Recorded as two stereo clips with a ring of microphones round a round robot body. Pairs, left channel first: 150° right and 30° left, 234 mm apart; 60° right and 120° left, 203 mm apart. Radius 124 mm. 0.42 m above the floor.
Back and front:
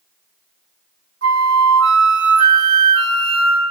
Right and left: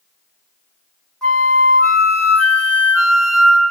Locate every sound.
1.2 s a flute: 25° left, 1.7 m